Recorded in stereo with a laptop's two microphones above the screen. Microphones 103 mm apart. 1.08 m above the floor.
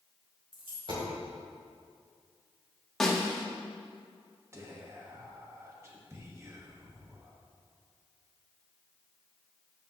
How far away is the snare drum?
About 1.5 m.